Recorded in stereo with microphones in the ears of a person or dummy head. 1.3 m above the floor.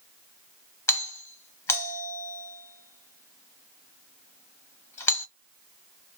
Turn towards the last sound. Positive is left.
turn(degrees=10)  # may be behind; listen again after turning